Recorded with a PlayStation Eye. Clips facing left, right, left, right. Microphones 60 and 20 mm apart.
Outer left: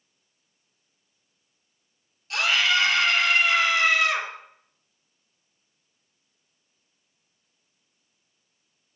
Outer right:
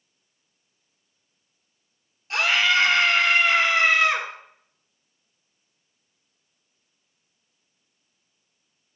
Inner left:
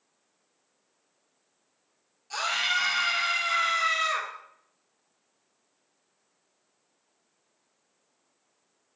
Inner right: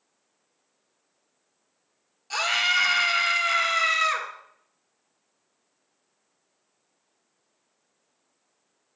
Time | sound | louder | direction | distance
2.3 | a scream | outer right 2 dB, inner right 4 dB | 35° right (ahead or behind) | 2 m